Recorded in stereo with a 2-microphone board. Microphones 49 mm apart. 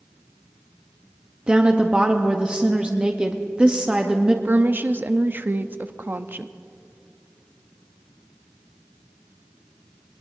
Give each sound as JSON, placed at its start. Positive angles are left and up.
{"t": 1.5, "sound": "a woman speaking", "side_deg": -20, "distance_m": 0.8}
{"t": 4.5, "sound": "a woman speaking", "side_deg": -40, "distance_m": 0.5}